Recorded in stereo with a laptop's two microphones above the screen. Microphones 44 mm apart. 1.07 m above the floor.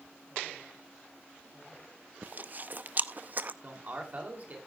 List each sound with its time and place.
2.2 s chewing: 40° right (ahead or behind), 0.5 m
3.6 s a man speaking: 35° right (ahead or behind), 2.5 m